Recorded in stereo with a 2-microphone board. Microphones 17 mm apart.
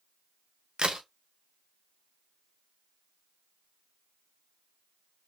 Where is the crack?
60° right (ahead or behind), 0.9 m.